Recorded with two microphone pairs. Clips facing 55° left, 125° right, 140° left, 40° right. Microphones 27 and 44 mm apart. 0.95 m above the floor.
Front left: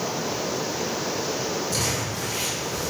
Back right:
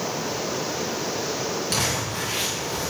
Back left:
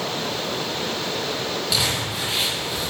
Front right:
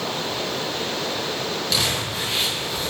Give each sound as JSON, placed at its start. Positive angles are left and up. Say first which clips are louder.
{"t": 1.7, "sound": "crumpling", "louder": "back right 1 dB, even", "azimuth_deg": -135, "distance_m": 7.0}